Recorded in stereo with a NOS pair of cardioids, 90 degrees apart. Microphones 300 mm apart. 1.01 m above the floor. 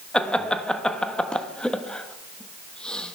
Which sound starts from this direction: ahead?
Laughter, at 0.1 s.